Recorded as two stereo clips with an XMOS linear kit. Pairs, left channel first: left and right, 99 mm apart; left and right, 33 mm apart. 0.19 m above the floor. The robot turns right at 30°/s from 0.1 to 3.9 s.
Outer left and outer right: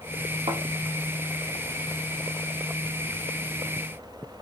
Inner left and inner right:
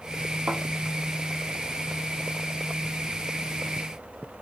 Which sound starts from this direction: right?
A thud, at 0.5 s.